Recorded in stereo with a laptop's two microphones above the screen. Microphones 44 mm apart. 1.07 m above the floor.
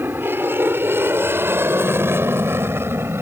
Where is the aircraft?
55° right (ahead or behind); by 3.2 s 70° right (ahead or behind).